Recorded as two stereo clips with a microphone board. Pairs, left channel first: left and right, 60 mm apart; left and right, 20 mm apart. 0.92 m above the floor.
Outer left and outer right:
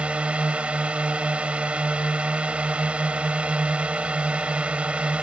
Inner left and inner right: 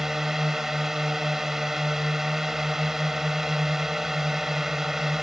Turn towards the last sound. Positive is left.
turn(degrees=-20)  # may be behind; listen again after turning